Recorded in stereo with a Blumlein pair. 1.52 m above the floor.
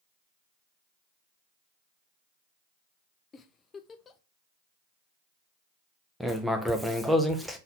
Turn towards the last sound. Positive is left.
turn(degrees=0)